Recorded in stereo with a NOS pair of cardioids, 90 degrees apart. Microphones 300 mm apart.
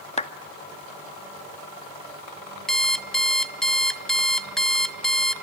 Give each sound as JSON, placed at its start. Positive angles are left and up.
{"t": 0.2, "sound": "a clap", "azimuth_deg": 20, "distance_m": 1.8}
{"t": 2.7, "sound": "an alarm clock", "azimuth_deg": 0, "distance_m": 1.2}